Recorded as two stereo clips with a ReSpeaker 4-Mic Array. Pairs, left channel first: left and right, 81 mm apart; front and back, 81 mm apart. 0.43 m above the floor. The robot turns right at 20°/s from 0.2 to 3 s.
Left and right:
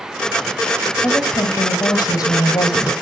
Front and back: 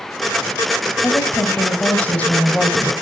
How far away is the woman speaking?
About 2.5 m.